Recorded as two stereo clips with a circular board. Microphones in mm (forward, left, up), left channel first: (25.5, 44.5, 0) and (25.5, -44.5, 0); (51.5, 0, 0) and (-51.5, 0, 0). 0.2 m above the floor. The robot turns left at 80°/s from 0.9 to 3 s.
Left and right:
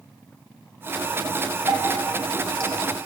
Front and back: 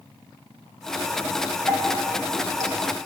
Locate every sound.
1.7 s dripping: 55° right, 1.1 m; by 2.8 s 140° right, 1.1 m